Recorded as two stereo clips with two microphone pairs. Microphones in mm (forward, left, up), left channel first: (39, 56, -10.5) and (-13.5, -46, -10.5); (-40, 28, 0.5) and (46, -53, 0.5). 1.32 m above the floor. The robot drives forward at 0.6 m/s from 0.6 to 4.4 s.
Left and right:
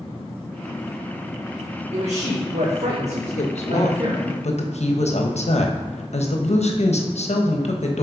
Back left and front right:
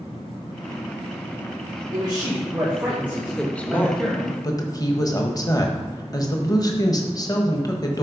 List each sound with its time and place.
1.9 s a man speaking: 95° right, 1.4 m; by 4.4 s 140° right, 2 m
3.4 s a woman speaking: 50° left, 1.4 m; by 8.0 s 80° left, 1.1 m